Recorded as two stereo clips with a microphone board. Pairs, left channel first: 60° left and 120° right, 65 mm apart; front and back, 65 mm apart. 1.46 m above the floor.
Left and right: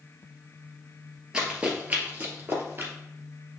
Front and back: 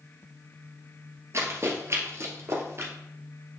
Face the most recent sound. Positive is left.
turn(degrees=-155)